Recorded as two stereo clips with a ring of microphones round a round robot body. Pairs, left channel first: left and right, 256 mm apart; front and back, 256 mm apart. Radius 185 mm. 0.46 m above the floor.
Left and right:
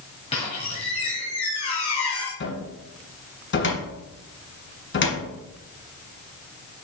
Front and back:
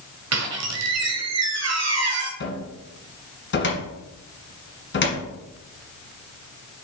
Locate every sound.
0.3 s a squeak: 160° left, 1.7 m
2.4 s a cupboard door: 45° left, 2.0 m